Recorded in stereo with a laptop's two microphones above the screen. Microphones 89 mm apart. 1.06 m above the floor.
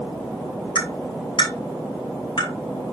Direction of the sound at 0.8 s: 60° left (ahead or behind).